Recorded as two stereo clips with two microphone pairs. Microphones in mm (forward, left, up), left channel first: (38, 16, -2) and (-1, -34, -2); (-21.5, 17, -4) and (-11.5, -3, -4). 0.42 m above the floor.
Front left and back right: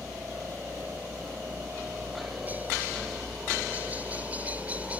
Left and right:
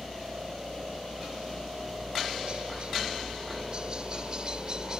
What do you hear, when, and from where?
0.0 s a helicopter: 75° right; by 5.0 s 80° right